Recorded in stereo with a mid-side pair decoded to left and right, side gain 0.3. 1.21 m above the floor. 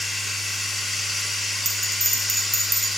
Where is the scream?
I don't hear a scream.